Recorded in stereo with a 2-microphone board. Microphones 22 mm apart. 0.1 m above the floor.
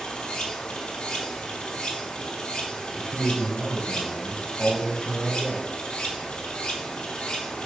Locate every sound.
0.0 s running water: 60° left (ahead or behind), 1.8 m
3.0 s a man speaking: 45° left (ahead or behind), 2.5 m